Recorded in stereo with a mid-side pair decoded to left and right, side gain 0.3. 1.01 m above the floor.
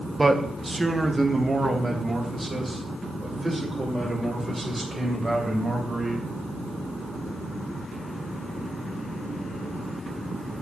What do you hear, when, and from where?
0.2 s a man speaking: 20° right, 0.9 m; by 6.2 s 30° right, 4.5 m